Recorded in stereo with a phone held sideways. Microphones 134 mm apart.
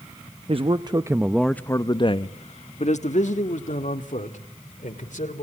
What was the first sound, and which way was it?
A man speaking, 50° right (ahead or behind).